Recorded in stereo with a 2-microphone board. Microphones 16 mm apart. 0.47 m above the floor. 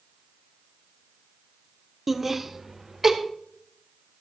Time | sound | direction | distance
2.1 | laughter | 5° right (ahead or behind) | 1.1 m